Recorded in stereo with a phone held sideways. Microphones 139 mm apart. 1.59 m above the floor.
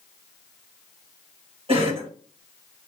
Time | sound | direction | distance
1.7 | a cough | 40° right (ahead or behind) | 2 m